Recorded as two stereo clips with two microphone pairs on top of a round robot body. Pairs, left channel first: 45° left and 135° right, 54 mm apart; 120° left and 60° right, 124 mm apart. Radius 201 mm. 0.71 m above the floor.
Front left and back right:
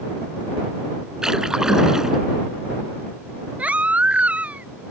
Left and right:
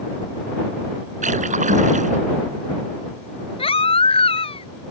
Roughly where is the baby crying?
Behind.